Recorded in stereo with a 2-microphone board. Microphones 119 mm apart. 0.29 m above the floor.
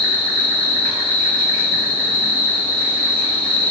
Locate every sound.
0.0 s an insect: 45° left (ahead or behind), 1.4 m